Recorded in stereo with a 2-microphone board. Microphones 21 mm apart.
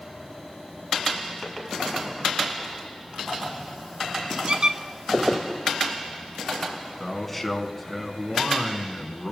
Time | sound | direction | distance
4.5 | a squeak | 50° right (ahead or behind) | 1.1 m
7.0 | a man speaking | 10° left (ahead or behind) | 1.8 m